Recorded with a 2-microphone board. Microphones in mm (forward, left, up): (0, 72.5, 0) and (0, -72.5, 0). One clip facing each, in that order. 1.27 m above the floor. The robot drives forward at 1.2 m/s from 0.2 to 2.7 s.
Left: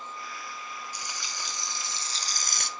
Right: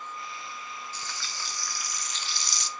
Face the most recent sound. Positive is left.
turn(degrees=65)  # may be behind; listen again after turning